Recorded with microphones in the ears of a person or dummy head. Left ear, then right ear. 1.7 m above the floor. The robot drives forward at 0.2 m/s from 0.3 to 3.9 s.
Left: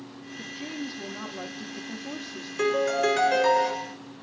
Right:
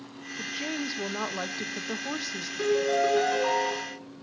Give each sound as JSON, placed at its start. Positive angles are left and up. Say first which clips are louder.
{"t": 0.4, "sound": "a woman speaking", "louder": "right 4 dB", "side_deg": -50, "distance_m": 0.8}
{"t": 2.6, "sound": "a piano", "louder": "left 1 dB", "side_deg": 35, "distance_m": 2.5}